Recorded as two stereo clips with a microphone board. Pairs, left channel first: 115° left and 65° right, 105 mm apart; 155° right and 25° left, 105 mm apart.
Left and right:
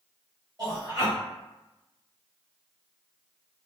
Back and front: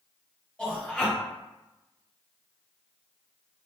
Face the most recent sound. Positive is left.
turn(degrees=-80)